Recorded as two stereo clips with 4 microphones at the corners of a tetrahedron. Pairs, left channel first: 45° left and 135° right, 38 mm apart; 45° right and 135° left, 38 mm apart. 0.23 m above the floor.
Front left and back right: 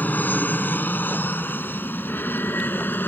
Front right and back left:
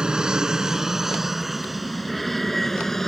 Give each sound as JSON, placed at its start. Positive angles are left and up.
{"t": 0.0, "sound": "an aircraft", "azimuth_deg": 70}